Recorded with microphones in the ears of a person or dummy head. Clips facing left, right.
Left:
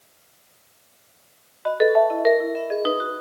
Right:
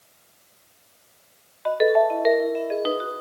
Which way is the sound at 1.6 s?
5° left (ahead or behind).